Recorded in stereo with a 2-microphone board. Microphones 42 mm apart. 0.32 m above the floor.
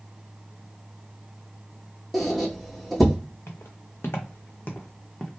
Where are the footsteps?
75° left (ahead or behind), 1.1 m; by 5.3 s 5° left (ahead or behind), 0.9 m.